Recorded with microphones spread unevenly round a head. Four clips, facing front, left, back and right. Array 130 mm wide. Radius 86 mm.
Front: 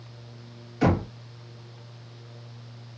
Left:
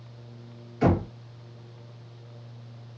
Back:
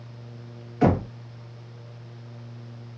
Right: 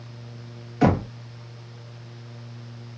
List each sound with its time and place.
0.8 s knocking: 80° right, 1.0 m